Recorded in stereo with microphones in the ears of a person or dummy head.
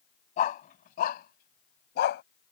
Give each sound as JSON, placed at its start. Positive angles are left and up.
{"t": 0.4, "sound": "a dog barking", "side_deg": 35}